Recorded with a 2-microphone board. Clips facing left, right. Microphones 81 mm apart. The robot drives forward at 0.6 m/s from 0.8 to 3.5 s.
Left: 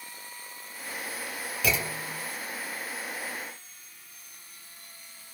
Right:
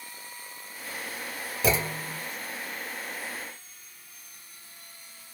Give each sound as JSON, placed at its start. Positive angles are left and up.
{"t": 1.6, "sound": "a clunk", "side_deg": -35, "distance_m": 1.1}